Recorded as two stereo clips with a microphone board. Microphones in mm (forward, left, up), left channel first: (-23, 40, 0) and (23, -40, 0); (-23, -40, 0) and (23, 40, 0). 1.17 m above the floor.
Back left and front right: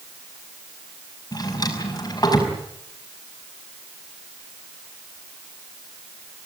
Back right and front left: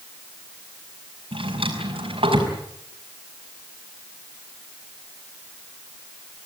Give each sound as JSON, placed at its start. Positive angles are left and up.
{"t": 1.3, "sound": "a drawer", "azimuth_deg": 70, "distance_m": 5.0}